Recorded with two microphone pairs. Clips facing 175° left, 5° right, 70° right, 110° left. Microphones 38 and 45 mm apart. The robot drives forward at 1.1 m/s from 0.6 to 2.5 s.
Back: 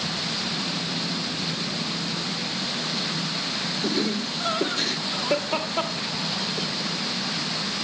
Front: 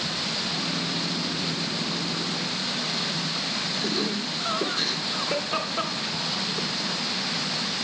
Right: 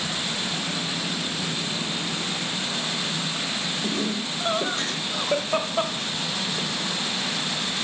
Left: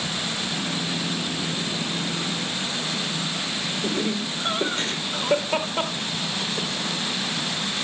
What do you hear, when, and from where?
3.8 s laughter: 155° left, 3 m